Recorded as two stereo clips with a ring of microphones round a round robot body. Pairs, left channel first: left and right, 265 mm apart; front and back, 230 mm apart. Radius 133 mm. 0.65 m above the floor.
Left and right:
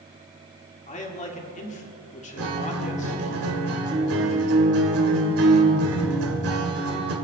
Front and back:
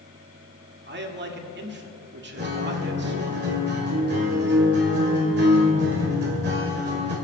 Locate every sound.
0.9 s a man speaking: 150° left, 1.7 m
2.4 s a guitar: 125° right, 2 m